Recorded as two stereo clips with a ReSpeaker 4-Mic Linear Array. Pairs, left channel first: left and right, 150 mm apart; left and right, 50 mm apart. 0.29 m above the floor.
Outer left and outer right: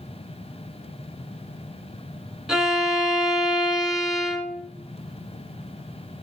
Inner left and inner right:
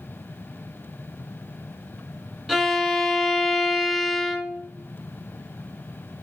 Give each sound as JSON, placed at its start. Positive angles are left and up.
{"t": 2.5, "sound": "a violin", "side_deg": -5, "distance_m": 0.8}